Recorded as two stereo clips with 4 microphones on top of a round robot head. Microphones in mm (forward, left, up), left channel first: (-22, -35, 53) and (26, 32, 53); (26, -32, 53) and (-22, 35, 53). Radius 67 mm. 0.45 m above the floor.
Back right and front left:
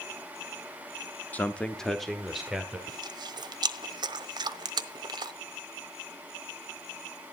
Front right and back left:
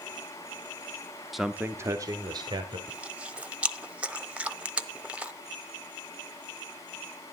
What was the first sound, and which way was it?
A man speaking, 145° right.